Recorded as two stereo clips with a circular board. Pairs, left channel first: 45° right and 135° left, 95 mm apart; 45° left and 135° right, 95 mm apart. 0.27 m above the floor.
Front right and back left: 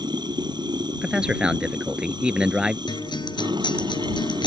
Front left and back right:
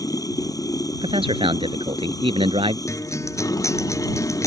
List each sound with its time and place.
0.0 s running water: 95° left
1.0 s a man speaking: 145° right
2.9 s a guitar: 10° right